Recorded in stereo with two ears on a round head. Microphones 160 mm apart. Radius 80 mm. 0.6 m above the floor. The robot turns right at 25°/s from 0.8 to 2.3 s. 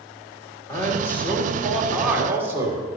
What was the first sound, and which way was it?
A man speaking, 155° left.